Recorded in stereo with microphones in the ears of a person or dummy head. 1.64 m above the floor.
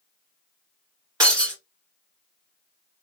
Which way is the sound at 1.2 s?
20° right (ahead or behind).